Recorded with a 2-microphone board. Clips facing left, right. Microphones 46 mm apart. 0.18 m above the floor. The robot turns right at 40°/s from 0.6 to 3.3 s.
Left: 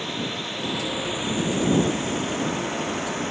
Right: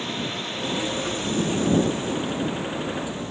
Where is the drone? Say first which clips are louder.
Even; straight ahead; by 3.3 s 110° left.